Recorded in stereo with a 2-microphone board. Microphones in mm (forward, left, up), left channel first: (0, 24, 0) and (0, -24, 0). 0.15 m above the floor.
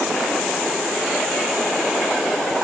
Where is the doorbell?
No doorbell in this recording.